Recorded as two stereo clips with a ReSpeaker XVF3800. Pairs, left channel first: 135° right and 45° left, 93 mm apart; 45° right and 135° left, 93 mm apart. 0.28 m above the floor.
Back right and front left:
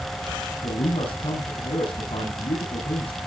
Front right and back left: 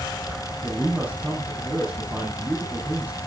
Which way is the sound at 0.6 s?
145° right.